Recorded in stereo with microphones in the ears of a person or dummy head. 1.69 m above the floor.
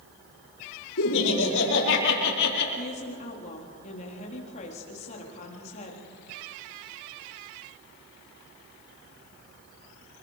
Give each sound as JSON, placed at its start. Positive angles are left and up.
{"t": 1.0, "sound": "laughter", "side_deg": 75, "distance_m": 5.0}
{"t": 2.8, "sound": "a woman speaking", "side_deg": 45, "distance_m": 4.0}